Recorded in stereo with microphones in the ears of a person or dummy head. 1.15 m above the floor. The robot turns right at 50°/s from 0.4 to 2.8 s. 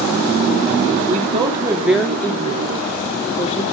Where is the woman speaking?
40° right, 2.5 m; by 3.6 s 45° left, 2.5 m.